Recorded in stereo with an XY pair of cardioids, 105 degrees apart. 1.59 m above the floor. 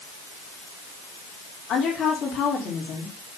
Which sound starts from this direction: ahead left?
A woman speaking, at 1.7 s.